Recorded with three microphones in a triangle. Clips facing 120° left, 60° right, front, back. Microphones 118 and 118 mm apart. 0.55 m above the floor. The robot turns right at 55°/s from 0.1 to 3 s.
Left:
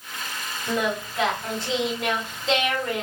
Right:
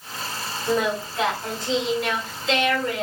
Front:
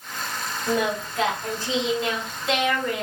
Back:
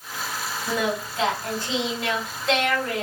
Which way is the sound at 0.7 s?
25° right.